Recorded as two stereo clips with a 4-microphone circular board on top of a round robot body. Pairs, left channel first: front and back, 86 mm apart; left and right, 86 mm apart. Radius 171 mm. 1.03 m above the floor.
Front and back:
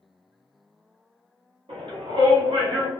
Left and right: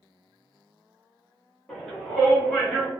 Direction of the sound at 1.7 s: 175° left.